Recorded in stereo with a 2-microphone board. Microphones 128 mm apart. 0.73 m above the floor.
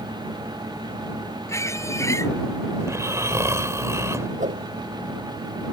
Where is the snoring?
25° right (ahead or behind).